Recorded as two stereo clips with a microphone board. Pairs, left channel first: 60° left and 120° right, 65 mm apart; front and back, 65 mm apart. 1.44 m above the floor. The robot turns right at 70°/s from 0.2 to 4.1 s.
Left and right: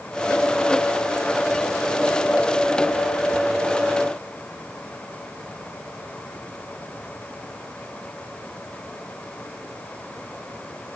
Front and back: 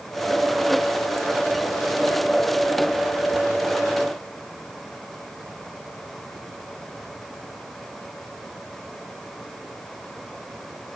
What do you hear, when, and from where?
Only background noise.